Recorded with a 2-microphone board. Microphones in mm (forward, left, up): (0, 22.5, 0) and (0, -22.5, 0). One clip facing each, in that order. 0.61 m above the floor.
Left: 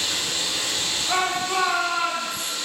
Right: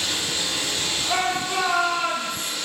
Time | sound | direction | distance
0.0 | running water | 25° right (ahead or behind) | 0.9 m
1.1 | a shout | 20° left (ahead or behind) | 0.6 m